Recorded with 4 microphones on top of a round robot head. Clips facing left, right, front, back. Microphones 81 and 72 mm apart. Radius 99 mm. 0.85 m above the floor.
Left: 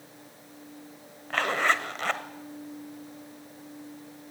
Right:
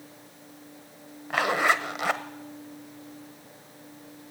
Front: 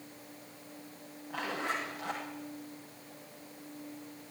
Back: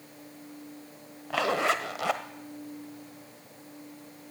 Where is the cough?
I don't hear a cough.